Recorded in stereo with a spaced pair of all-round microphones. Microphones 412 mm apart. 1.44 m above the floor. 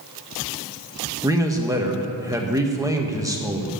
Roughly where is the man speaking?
Centre.